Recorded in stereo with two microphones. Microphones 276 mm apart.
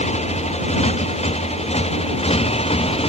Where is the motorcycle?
20° left (ahead or behind).